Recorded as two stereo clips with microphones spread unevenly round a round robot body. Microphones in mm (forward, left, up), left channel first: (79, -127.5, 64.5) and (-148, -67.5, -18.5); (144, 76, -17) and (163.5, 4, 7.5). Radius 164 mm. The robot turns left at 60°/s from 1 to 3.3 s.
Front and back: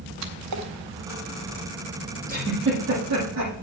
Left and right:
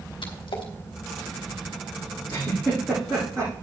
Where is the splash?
125° left, 0.9 m.